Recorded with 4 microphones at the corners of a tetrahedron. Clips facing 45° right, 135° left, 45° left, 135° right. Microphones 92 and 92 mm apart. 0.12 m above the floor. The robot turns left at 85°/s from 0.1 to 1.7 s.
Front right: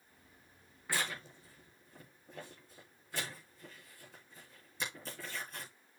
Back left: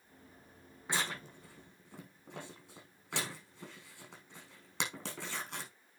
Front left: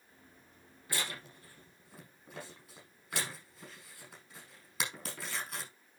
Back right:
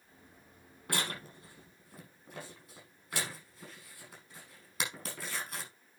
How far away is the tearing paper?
About 5 m.